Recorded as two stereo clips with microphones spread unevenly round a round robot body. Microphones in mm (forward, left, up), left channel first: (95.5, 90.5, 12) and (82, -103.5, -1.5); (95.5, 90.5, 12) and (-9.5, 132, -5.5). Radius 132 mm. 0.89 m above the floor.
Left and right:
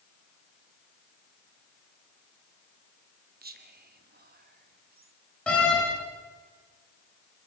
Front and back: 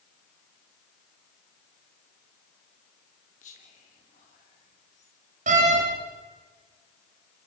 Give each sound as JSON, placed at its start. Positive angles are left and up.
{"t": 3.4, "sound": "whispering", "azimuth_deg": -60, "distance_m": 3.0}
{"t": 5.5, "sound": "a door slam", "azimuth_deg": 170, "distance_m": 3.5}